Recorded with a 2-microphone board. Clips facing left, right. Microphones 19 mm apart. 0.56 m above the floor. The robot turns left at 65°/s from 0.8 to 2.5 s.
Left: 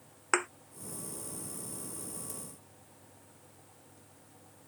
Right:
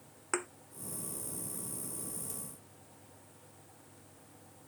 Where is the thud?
30° left (ahead or behind).